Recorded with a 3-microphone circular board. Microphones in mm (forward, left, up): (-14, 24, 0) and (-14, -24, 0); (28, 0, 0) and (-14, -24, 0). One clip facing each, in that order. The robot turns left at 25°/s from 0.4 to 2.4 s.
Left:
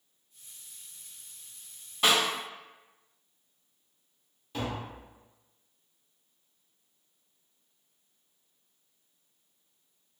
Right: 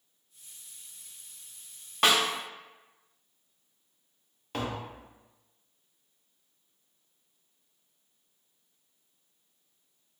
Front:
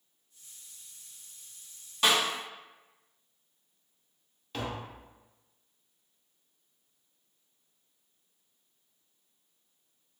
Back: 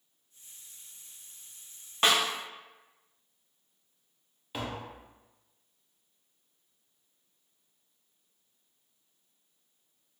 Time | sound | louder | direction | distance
2.0 | a snare drum | right 1 dB, back 1 dB | 105° right | 0.7 m
4.5 | tapping | right 1 dB, even | 70° right | 0.6 m